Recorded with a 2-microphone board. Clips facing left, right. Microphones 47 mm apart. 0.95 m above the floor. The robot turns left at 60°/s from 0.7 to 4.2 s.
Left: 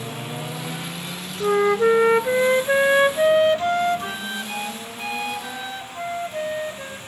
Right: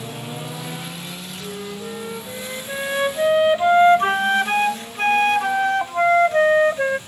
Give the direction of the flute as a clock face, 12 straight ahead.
8 o'clock.